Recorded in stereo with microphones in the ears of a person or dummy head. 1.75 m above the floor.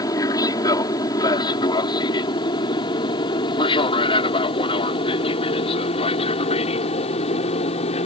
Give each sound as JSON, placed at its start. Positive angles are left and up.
{"t": 0.0, "sound": "an aircraft", "side_deg": 20}